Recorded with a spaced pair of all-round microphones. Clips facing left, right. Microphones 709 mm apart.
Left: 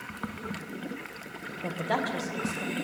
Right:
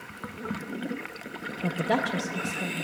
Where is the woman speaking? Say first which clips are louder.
Right 4 dB; 50° right (ahead or behind), 0.6 m; by 2.9 s 55° right (ahead or behind), 1.4 m.